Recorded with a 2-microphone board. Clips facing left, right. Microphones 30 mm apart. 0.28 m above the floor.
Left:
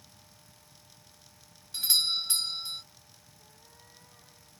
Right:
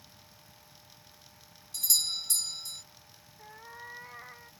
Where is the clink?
I don't hear a clink.